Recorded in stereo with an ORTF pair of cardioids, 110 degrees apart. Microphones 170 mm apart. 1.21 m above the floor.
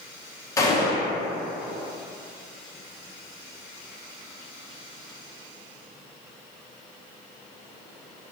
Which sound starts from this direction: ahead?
A gunshot, at 0.6 s.